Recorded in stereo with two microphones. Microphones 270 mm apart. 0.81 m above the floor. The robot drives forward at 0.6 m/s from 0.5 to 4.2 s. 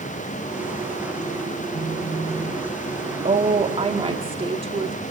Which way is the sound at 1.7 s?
35° left (ahead or behind).